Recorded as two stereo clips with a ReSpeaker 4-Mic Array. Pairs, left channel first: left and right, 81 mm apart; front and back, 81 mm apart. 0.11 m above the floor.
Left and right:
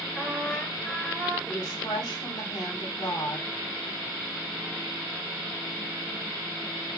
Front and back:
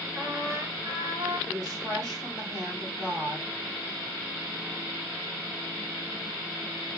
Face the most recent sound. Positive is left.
turn(degrees=90)